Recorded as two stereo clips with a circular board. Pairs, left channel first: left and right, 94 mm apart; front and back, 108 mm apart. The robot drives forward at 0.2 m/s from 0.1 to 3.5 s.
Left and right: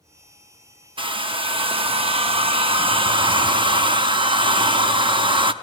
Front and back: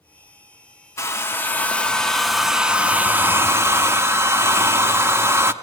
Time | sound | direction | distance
1.0 | a hair dryer | 65° right | 0.6 m